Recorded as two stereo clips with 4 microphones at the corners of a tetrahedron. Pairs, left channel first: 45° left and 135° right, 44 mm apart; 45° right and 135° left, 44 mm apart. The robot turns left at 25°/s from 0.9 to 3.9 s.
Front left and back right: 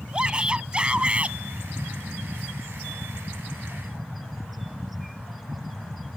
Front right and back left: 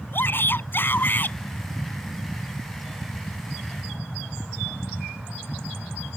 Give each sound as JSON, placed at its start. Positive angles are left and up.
{"t": 0.1, "sound": "a shout", "azimuth_deg": -70}